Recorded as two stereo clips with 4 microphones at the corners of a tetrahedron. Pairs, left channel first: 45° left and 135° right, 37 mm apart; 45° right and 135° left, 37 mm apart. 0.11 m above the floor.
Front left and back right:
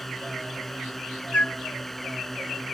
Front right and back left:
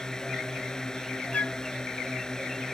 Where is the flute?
Straight ahead.